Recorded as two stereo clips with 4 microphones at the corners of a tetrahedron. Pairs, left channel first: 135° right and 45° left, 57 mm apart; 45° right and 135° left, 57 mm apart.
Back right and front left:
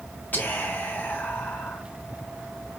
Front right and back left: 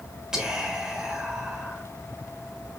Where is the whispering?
155° right, 1.3 m.